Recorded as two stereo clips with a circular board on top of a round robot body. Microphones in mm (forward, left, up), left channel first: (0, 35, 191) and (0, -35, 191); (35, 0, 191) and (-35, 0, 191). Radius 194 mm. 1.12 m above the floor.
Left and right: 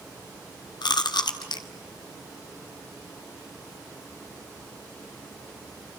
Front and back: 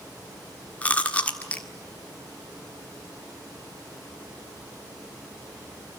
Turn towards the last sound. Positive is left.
turn(degrees=70)